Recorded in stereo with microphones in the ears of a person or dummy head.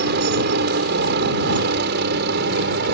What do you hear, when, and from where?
0.0 s a helicopter: 60° right (ahead or behind)